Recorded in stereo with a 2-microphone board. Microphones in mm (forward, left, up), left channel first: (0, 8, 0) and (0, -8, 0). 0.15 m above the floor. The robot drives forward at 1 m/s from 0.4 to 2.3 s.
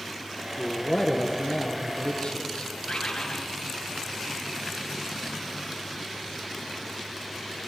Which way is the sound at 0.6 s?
45° left (ahead or behind).